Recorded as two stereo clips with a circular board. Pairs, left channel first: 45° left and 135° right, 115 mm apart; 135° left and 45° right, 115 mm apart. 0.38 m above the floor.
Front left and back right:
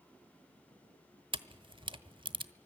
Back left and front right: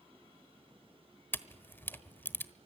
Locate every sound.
1.3 s a camera shutter: 160° right, 1.1 m